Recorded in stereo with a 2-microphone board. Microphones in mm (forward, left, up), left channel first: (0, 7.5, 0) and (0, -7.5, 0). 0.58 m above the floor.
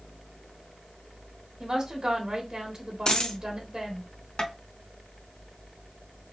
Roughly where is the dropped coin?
Left.